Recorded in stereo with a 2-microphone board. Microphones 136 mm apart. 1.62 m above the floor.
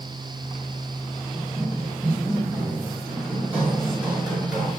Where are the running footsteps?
30° right (ahead or behind), 2.5 m; by 4.7 s 10° right (ahead or behind), 4.5 m.